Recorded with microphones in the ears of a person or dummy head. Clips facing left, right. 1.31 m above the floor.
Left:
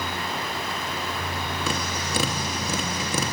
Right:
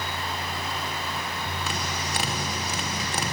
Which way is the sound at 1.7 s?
65° left (ahead or behind).